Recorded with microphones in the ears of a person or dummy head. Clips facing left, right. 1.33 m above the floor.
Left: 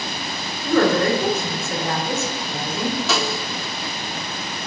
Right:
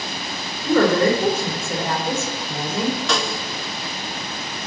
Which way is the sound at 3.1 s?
5° right (ahead or behind).